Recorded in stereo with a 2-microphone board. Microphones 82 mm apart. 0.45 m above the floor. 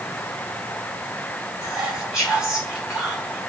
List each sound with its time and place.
1.6 s whispering: 10° right (ahead or behind), 1.7 m